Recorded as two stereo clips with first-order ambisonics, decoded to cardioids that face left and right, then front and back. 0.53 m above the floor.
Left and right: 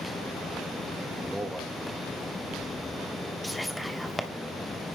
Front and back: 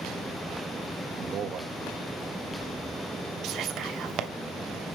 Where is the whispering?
175° left, 0.9 m.